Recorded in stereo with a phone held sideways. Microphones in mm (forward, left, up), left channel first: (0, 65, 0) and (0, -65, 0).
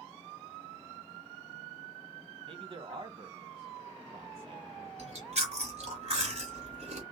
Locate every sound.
2.4 s a man speaking: 50° right (ahead or behind), 1.3 m
5.0 s chewing: 60° right (ahead or behind), 2.5 m